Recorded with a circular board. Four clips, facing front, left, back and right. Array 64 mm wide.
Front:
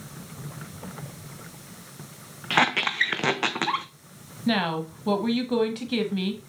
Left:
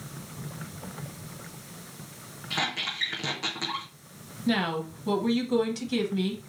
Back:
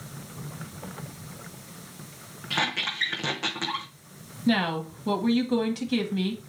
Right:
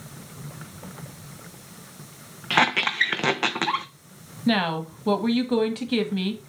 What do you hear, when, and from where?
2.5 s a squeak: 50° right, 0.6 m
4.5 s a woman speaking: 70° right, 1.3 m